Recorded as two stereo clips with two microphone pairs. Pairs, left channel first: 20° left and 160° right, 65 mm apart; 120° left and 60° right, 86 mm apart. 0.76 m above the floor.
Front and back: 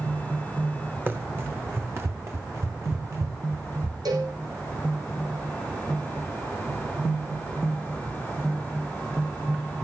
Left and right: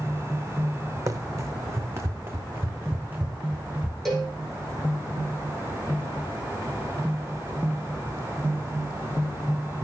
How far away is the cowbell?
About 9.5 m.